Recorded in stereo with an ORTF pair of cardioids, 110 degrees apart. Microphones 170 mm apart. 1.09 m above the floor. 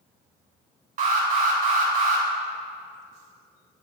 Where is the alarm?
55° right, 1.5 m.